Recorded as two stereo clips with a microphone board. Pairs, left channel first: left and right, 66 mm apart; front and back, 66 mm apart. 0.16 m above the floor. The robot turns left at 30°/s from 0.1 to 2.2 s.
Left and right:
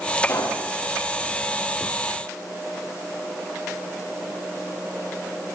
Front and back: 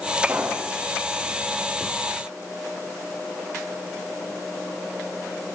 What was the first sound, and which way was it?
A pop, 110° left.